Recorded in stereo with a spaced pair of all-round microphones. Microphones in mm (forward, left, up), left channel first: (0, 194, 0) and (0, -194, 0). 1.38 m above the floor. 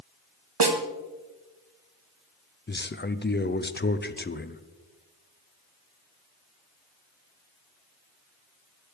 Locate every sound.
0.6 s a snare drum: 70° right (ahead or behind), 1.1 m
2.7 s a man speaking: 25° left (ahead or behind), 0.5 m